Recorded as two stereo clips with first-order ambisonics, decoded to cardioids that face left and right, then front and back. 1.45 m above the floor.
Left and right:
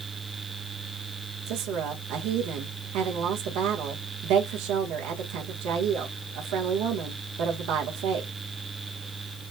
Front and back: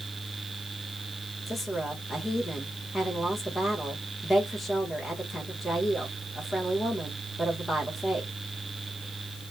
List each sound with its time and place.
1.5 s a woman speaking: 75° right, 1.7 m